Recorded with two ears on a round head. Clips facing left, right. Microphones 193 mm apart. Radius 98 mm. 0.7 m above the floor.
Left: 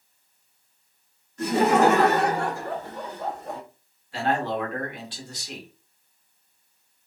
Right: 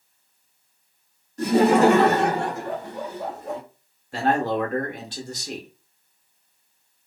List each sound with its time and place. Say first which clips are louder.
1.4 s laughter: right 3 dB; 30° right (ahead or behind), 1.2 m; by 3.6 s centre (ahead or behind), 1.0 m
4.1 s a man speaking: right 3 dB; 40° right (ahead or behind), 0.8 m